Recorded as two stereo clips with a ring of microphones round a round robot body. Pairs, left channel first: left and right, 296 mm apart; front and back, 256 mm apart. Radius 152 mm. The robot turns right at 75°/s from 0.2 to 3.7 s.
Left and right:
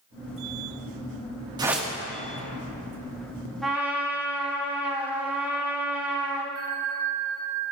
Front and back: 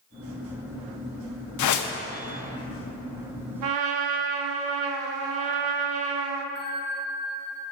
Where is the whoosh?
15° right, 0.6 m; by 1.9 s 10° left, 0.6 m.